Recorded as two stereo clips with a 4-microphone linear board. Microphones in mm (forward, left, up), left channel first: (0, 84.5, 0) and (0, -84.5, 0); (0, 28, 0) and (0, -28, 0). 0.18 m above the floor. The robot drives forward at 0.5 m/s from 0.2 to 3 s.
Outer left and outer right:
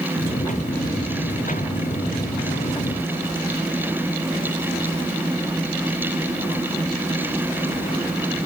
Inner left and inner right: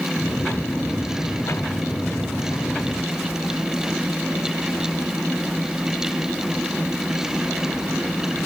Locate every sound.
Only background noise.